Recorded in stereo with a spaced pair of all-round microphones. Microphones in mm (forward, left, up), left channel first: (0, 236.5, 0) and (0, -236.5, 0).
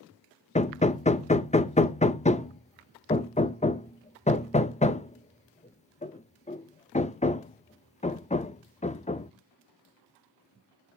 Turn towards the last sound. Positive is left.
turn(degrees=15)  # may be behind; listen again after turning